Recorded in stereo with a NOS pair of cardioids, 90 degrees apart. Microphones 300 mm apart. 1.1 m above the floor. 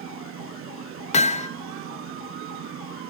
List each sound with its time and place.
0.0 s a fan: 50° right, 0.9 m
1.1 s hammering: 25° left, 0.9 m